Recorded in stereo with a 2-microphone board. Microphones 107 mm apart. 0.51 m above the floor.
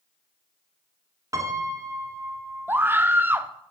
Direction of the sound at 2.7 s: 20° right (ahead or behind).